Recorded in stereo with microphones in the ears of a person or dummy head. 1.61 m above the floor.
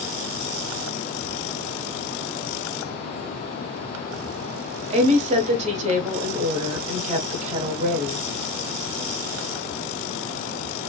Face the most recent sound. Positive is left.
turn(degrees=-40)  # may be behind; listen again after turning